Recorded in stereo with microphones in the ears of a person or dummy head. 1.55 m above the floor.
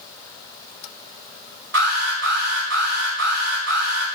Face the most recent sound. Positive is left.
turn(degrees=-65)  # may be behind; listen again after turning